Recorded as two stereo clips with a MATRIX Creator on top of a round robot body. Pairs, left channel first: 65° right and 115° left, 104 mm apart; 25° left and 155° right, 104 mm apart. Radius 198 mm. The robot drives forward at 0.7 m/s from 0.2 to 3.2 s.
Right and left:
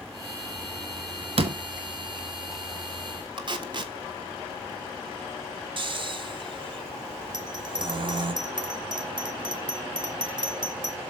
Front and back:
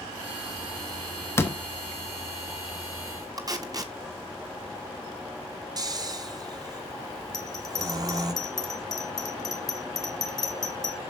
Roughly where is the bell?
Left.